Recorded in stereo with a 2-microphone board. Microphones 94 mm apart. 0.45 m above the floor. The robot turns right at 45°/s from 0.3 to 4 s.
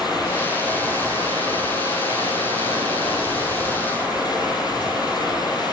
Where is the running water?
175° right, 9.5 m; by 5.7 s 10° right, 9.5 m.